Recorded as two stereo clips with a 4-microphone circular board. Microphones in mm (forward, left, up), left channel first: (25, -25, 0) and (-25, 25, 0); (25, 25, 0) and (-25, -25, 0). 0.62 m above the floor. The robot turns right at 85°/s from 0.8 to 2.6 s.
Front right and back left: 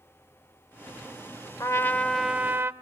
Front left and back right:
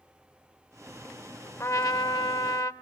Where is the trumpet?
5° right, 0.7 m; by 2.7 s 80° left, 0.7 m.